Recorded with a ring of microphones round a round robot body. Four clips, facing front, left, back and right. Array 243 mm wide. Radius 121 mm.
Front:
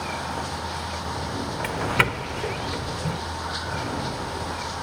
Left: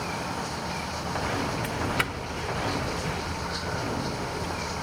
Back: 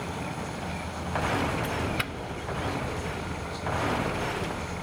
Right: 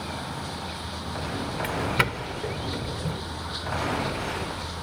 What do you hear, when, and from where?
0.0 s running water: 10° left
1.6 s a doorbell: 30° right